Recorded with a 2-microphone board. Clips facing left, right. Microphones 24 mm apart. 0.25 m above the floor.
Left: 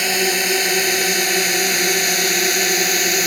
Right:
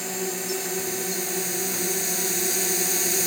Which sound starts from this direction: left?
A drone, at 0.0 s.